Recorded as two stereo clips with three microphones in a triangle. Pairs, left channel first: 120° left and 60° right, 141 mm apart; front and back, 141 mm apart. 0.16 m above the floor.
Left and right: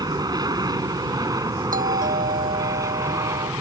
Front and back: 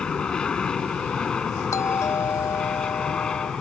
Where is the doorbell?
70° right.